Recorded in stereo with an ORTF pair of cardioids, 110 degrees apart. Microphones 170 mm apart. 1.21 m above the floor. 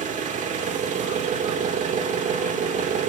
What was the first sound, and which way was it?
An engine running, 45° right.